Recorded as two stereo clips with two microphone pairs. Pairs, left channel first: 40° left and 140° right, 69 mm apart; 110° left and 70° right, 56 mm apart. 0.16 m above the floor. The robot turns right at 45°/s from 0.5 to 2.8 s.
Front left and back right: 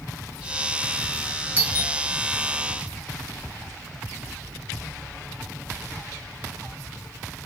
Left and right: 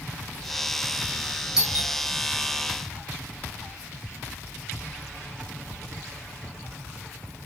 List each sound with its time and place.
1.6 s a doorbell: 140° right, 2 m; by 1.9 s 125° right, 2 m